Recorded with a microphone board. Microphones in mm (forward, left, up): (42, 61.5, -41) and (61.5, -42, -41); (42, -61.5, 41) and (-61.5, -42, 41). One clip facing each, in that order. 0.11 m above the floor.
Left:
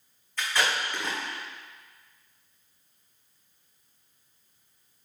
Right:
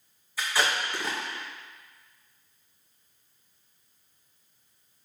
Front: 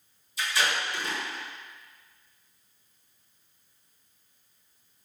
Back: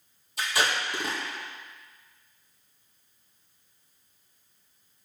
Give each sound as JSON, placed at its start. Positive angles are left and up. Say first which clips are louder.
{"t": 0.4, "sound": "tape being pulled", "louder": "even, back 1 dB", "azimuth_deg": -160, "distance_m": 2.0}